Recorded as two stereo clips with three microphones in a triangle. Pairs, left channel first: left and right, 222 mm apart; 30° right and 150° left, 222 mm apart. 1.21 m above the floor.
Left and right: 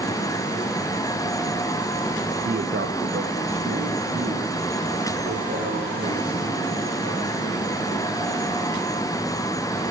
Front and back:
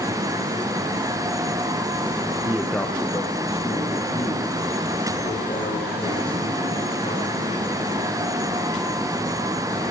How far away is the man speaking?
About 0.8 m.